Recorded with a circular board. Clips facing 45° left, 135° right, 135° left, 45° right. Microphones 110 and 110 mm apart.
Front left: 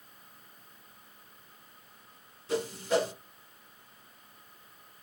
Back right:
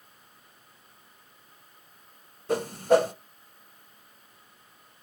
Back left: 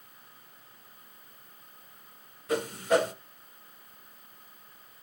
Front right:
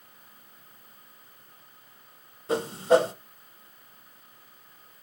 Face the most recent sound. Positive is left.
turn(degrees=-105)